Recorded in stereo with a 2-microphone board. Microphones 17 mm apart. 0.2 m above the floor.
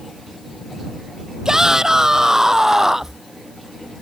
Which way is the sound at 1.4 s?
35° right (ahead or behind).